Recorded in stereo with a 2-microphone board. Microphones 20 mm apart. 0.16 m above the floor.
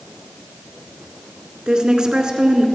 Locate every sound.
1.7 s a woman speaking: 45° right (ahead or behind), 2 m